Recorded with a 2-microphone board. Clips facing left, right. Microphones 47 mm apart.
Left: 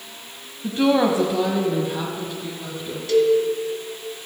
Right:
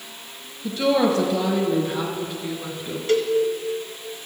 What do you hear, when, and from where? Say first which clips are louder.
0.6 s a woman speaking: left 1 dB; 35° left (ahead or behind), 1.1 m; by 3.0 s 20° right (ahead or behind), 2 m
3.1 s a cowbell: left 4 dB; 40° right (ahead or behind), 1.2 m